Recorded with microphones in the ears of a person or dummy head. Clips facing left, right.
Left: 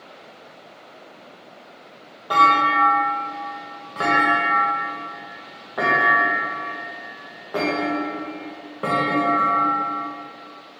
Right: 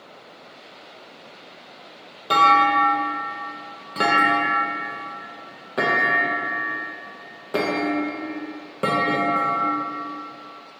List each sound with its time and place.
2.3 s a clunk: 30° right (ahead or behind), 0.6 m